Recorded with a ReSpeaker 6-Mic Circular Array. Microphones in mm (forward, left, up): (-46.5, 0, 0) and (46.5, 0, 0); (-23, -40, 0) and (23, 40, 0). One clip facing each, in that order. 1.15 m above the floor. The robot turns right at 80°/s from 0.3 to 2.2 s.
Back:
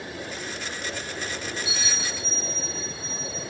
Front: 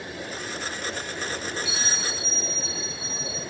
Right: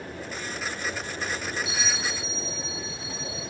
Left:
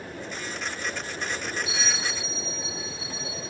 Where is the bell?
120° right, 3 m; by 3.4 s 75° right, 3 m.